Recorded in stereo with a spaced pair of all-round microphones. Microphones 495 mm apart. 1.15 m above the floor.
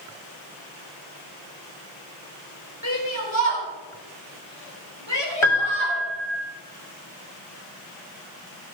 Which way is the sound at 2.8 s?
65° right (ahead or behind).